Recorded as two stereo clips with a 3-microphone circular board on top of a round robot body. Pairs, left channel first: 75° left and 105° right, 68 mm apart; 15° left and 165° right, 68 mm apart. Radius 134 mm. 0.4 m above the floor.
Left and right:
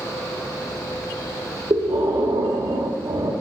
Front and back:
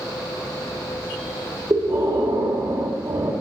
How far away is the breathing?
About 1.7 m.